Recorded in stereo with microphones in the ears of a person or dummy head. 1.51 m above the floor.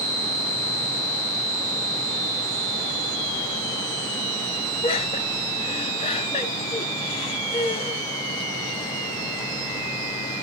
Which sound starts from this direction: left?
Laughter, at 4.8 s.